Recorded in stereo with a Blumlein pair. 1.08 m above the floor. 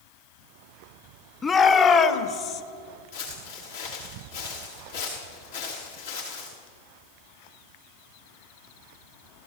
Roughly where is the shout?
Ahead.